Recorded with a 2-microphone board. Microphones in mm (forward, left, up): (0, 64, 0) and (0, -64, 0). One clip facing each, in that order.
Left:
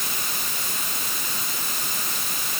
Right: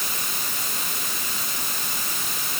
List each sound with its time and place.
Only background noise.